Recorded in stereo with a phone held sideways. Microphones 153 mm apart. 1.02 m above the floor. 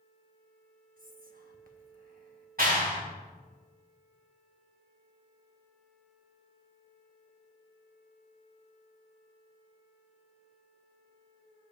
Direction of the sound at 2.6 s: 75° right (ahead or behind).